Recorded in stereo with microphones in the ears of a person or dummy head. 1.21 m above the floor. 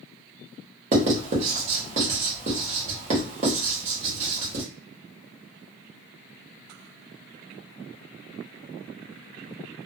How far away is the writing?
About 1.1 m.